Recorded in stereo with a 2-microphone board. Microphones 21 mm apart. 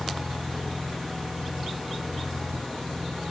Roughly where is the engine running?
Left.